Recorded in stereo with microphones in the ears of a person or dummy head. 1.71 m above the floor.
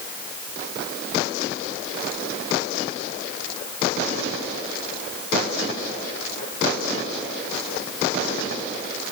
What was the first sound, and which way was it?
Only background noise.